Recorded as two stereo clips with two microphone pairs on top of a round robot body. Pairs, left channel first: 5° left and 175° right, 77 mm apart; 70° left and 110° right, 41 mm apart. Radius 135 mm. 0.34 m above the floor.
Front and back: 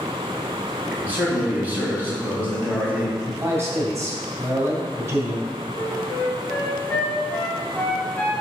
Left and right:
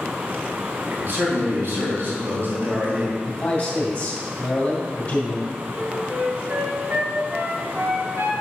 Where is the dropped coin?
No dropped coin in this recording.